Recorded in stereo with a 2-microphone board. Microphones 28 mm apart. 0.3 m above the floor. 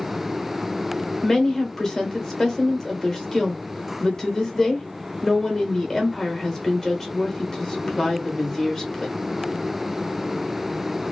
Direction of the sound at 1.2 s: 20° left (ahead or behind).